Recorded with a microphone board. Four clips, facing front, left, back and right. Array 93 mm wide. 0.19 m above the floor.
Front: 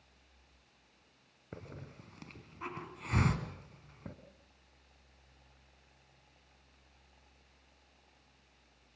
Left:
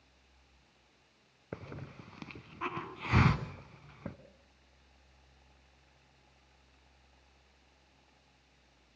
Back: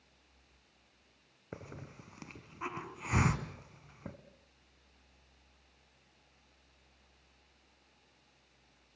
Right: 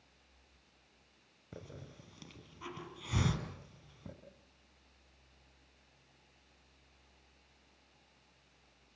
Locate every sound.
1.5 s a hiss: 105° left, 1.4 m